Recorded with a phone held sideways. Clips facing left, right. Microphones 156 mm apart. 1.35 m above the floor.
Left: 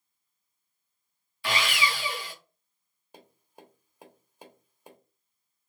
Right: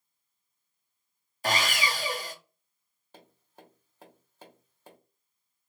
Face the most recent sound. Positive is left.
turn(degrees=15)  # may be behind; listen again after turning